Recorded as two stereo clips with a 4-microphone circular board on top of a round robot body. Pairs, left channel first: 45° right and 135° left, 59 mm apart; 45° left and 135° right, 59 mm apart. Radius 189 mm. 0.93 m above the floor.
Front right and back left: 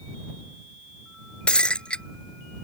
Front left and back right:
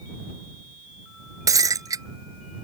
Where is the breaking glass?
120° right.